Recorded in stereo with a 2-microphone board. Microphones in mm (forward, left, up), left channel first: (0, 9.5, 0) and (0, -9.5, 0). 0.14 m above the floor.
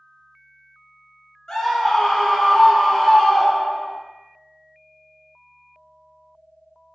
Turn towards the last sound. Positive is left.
turn(degrees=0)  # may be behind; listen again after turning